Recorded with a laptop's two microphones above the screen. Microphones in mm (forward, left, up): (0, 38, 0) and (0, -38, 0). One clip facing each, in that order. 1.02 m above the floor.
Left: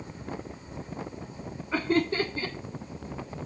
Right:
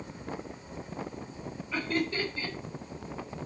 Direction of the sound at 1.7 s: 35° left (ahead or behind).